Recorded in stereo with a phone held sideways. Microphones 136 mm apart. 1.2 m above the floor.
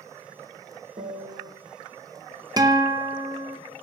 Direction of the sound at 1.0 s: 55° right (ahead or behind).